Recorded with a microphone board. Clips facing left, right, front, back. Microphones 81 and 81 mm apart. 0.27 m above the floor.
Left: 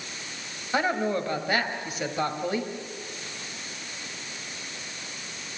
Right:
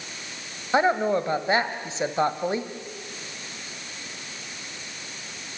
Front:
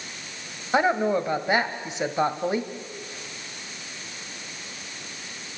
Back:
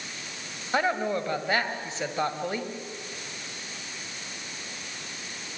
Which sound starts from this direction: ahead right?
A woman speaking, at 0.7 s.